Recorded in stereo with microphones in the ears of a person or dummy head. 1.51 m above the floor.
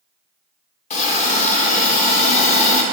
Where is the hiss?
40° left (ahead or behind), 0.9 m.